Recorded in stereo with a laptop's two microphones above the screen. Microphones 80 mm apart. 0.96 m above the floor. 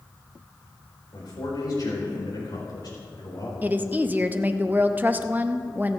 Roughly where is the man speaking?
Left.